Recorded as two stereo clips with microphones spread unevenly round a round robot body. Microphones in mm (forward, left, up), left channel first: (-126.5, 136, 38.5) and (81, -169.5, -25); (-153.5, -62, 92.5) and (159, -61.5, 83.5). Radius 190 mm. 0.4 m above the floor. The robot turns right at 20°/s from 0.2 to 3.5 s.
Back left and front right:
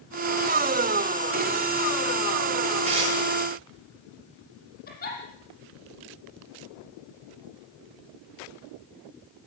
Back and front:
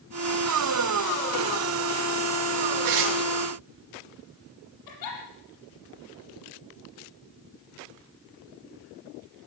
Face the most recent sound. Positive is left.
turn(degrees=-170)